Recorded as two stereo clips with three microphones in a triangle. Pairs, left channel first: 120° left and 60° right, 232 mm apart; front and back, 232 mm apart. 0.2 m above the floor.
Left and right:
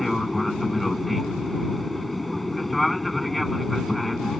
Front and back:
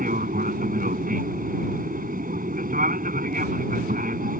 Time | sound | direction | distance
0.0 | an aircraft | 150° right | ?